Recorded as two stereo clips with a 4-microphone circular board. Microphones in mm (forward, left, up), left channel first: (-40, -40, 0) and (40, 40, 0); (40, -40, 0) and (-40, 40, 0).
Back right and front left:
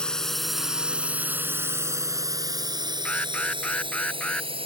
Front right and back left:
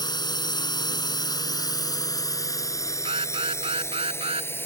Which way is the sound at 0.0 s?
55° right.